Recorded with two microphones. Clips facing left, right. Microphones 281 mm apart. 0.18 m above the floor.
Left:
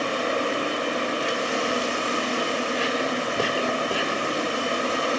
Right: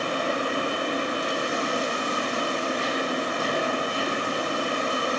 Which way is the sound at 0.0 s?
70° left (ahead or behind).